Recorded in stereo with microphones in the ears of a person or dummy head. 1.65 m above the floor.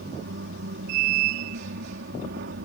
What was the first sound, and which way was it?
A machine running, 70° right (ahead or behind).